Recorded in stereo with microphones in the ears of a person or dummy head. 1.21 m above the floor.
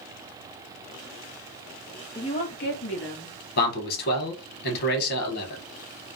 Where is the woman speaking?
15° left (ahead or behind), 0.5 m; by 3.4 s 60° left (ahead or behind), 1.0 m.